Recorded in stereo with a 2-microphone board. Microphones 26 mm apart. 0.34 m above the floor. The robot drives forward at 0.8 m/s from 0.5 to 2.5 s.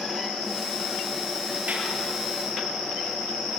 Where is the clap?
80° right, 5 m.